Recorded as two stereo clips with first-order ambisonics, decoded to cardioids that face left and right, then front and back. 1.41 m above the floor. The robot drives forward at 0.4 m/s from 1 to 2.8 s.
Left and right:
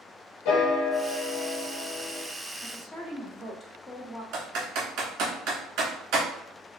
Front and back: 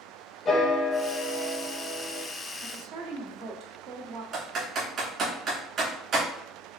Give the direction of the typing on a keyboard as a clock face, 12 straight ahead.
4 o'clock.